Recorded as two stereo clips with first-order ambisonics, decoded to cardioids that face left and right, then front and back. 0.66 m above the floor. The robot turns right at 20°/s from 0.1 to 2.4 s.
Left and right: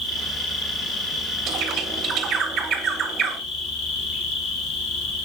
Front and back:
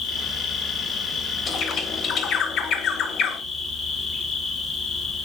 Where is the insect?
35° left, 2 m; by 5.3 s 80° left, 2 m.